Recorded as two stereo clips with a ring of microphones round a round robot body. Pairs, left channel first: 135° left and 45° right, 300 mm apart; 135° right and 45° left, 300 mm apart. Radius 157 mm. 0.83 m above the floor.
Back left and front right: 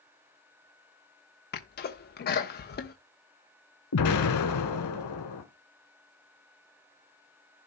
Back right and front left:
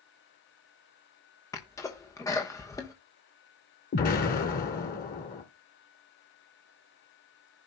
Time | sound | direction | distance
1.5 | a sneeze | 155° left | 0.9 m
3.9 | an explosion | 165° left | 1.6 m